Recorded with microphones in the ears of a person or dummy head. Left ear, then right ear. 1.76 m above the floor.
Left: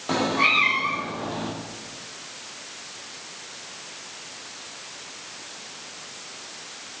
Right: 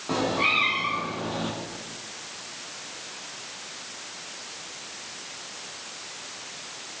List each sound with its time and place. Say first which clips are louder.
0.1 s a cat meowing: left 3 dB; 30° left (ahead or behind), 1.9 m; by 1.5 s 5° right (ahead or behind), 1.7 m